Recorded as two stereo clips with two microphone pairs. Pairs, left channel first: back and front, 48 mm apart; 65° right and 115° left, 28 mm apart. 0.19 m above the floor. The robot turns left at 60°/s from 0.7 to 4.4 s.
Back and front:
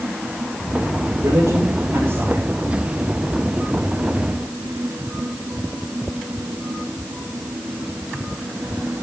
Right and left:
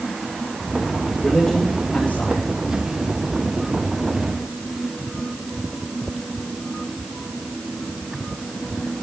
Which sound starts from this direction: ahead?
A man speaking, at 1.2 s.